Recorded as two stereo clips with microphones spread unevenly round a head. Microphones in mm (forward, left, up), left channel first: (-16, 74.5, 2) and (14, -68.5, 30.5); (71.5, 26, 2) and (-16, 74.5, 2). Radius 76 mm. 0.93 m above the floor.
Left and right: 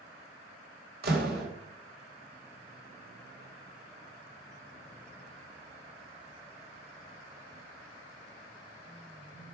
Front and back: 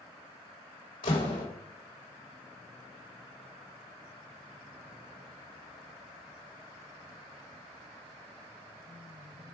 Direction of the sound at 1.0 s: 55° right.